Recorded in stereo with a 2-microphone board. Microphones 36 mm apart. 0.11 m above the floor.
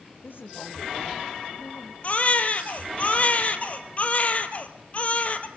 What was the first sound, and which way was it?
A woman speaking, 75° left (ahead or behind).